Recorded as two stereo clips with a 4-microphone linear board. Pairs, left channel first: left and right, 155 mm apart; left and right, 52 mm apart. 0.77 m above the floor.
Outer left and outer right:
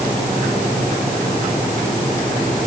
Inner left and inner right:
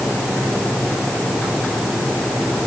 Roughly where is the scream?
No scream in this recording.